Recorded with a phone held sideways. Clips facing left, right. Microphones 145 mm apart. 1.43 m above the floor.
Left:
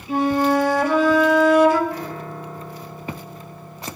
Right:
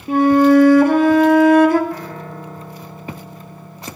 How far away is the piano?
About 4 m.